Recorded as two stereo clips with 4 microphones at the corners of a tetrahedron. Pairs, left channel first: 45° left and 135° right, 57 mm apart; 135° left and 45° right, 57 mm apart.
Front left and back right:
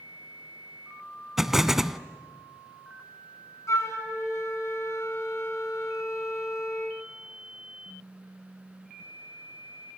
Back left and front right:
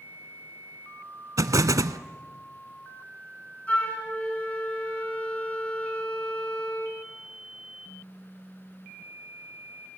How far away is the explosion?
About 0.6 m.